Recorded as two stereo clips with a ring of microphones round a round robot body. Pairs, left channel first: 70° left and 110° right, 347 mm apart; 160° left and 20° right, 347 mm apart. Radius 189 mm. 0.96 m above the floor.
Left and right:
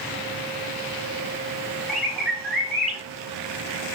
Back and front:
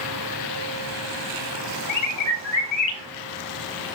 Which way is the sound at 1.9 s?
160° left.